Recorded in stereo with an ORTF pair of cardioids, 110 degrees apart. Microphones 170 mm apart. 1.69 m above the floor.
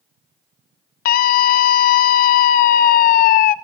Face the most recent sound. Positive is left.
turn(degrees=60)